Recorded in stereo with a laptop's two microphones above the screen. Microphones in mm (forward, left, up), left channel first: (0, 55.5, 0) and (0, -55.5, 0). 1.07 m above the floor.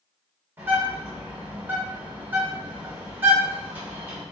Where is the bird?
20° right (ahead or behind), 1.4 m.